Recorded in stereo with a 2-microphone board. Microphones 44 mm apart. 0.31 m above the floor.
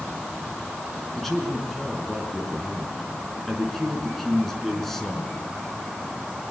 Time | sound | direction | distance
1.1 | a man speaking | centre (ahead or behind) | 4 m